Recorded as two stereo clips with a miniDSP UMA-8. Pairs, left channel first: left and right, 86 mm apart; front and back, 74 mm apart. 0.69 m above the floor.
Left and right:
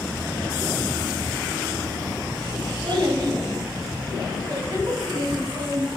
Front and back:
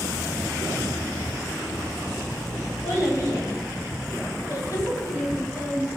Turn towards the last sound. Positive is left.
turn(degrees=-40)